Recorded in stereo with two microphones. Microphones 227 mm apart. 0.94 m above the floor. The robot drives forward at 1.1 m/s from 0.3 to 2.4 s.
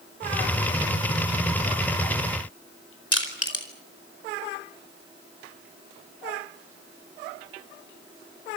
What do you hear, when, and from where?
3.1 s crushing: 75° left (ahead or behind), 4.5 m